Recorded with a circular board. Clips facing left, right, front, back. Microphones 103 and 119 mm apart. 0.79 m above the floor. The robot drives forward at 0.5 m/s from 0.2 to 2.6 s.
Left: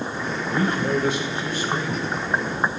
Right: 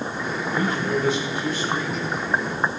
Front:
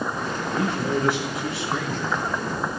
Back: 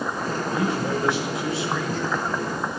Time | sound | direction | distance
0.5 | a man speaking | 115° left | 3 m